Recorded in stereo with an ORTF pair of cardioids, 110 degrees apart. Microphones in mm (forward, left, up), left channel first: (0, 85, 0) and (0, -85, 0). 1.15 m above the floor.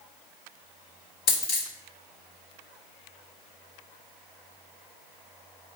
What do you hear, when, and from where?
1.3 s a dropped coin: 65° left, 1.7 m